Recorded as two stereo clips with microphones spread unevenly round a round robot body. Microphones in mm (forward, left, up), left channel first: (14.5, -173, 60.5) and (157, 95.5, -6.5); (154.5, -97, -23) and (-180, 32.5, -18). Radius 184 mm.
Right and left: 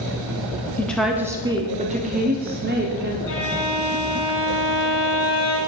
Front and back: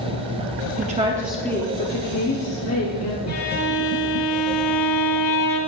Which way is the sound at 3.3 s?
70° right.